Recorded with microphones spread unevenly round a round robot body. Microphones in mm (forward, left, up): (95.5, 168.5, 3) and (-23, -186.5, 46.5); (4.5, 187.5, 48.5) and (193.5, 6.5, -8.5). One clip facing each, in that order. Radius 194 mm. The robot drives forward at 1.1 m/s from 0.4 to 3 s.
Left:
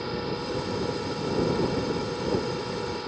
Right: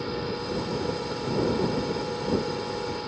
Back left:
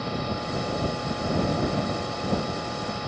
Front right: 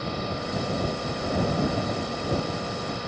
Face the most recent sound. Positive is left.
No sound to turn to.